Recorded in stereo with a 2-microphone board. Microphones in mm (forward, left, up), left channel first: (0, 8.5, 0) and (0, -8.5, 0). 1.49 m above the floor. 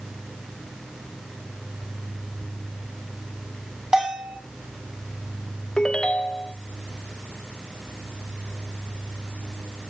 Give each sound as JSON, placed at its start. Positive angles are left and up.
{"t": 3.9, "sound": "a bell", "side_deg": -40, "distance_m": 8.5}
{"t": 5.8, "sound": "a ringtone", "side_deg": 50, "distance_m": 0.7}